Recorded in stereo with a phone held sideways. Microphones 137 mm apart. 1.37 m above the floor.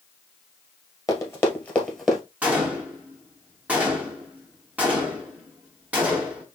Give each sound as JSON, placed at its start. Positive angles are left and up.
{"t": 1.1, "sound": "running footsteps", "side_deg": 25, "distance_m": 1.5}
{"t": 2.4, "sound": "a gunshot", "side_deg": -10, "distance_m": 1.2}